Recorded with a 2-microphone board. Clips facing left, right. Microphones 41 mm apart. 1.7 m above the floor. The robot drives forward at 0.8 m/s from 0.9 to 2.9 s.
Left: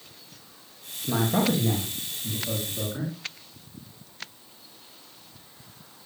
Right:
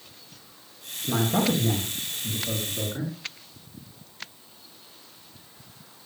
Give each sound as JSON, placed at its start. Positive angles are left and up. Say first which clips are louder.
{"t": 1.0, "sound": "a man speaking", "louder": "even", "side_deg": 0, "distance_m": 2.5}